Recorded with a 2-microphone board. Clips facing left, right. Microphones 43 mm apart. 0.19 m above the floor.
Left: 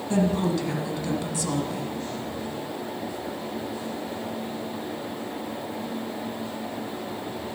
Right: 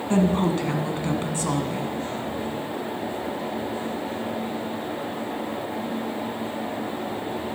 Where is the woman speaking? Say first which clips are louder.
Right 2 dB; 40° right (ahead or behind), 1.3 m.